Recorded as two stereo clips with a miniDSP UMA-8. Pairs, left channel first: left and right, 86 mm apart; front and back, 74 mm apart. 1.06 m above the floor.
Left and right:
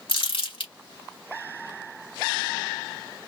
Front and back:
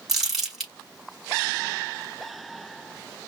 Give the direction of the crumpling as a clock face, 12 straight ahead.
9 o'clock.